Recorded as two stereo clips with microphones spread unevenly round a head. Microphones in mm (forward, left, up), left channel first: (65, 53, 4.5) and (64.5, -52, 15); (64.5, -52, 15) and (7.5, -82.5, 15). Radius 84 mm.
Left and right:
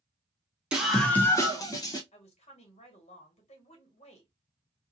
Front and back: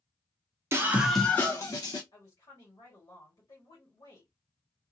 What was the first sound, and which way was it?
A scream, 175° right.